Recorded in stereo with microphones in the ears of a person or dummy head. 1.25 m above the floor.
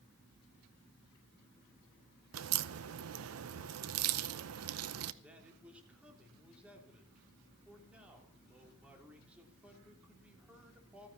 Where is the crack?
85° right, 0.6 m.